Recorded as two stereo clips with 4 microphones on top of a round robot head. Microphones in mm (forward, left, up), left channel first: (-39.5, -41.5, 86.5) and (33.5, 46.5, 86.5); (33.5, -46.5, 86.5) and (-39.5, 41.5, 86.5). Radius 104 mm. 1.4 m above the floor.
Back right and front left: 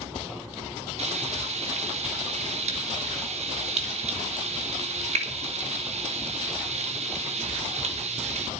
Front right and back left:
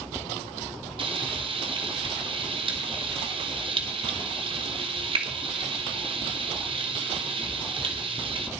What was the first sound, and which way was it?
Frying, 80° left.